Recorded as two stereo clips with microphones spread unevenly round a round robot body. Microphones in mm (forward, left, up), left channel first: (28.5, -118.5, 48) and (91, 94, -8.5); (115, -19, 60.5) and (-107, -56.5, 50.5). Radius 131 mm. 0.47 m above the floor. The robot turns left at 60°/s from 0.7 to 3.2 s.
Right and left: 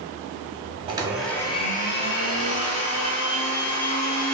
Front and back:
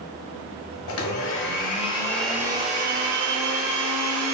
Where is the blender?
Straight ahead, 0.7 m; by 4.3 s 135° right, 0.7 m.